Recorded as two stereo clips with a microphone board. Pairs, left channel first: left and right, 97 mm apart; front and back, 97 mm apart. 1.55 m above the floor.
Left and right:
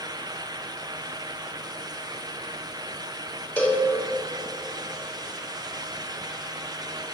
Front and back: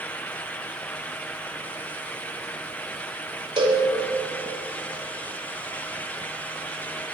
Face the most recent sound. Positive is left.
turn(degrees=160)